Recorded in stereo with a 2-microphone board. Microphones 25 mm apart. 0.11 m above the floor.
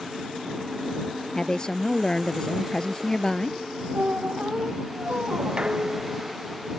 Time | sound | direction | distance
1.4 | a woman speaking | 30° left (ahead or behind) | ?
3.9 | a squeak | 70° right (ahead or behind) | ?
5.6 | dishes clattering | 30° right (ahead or behind) | ?